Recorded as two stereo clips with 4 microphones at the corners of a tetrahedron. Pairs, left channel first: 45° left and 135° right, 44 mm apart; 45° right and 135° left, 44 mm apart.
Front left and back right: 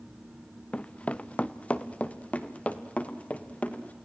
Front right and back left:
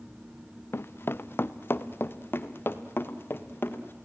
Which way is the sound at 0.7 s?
20° right.